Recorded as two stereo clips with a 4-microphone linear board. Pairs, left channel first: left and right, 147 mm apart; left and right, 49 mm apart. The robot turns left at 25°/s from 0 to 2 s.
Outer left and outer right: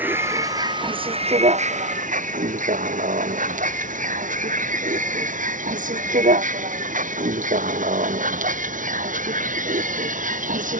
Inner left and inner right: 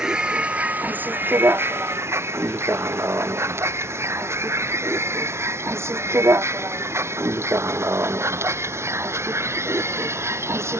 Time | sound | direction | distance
0.0 | a vehicle | 10° right (ahead or behind) | ?